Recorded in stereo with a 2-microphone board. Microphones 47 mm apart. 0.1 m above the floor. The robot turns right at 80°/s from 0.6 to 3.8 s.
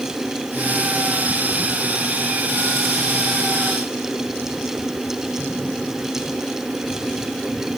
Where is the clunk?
I don't hear a clunk.